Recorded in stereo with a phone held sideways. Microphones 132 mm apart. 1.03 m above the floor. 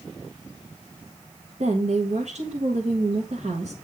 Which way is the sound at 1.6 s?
60° right (ahead or behind).